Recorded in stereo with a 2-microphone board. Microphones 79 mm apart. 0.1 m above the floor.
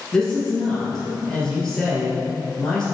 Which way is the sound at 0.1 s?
5° left (ahead or behind).